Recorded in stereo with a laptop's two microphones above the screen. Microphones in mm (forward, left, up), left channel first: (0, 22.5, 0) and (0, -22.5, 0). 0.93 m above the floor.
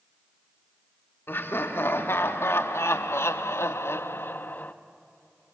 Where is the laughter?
55° left (ahead or behind), 1.9 m; by 4.7 s 40° left (ahead or behind), 0.9 m.